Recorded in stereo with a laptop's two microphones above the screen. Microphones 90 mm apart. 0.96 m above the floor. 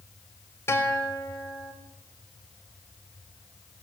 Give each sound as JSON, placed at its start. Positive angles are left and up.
{"t": 0.7, "sound": "a guitar", "side_deg": 30, "distance_m": 3.5}